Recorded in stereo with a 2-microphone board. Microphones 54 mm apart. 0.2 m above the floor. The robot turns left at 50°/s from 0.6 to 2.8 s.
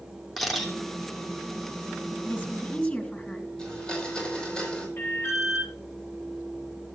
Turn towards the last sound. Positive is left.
turn(degrees=60)  # may be behind; listen again after turning